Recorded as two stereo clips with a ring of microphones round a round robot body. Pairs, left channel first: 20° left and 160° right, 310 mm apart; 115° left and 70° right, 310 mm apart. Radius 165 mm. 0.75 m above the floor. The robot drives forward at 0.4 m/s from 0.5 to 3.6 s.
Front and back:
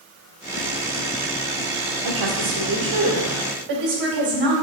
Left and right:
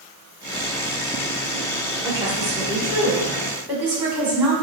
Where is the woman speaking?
145° right, 1.9 m; by 4.5 s 155° right, 2.5 m.